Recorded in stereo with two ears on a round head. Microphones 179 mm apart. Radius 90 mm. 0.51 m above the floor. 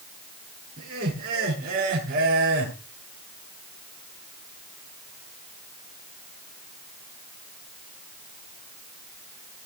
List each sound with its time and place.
0.8 s laughter: 45° right (ahead or behind), 9 m